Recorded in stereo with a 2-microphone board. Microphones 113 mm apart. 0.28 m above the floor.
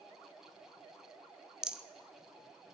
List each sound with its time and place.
1.6 s a rattle: 5° right (ahead or behind), 0.6 m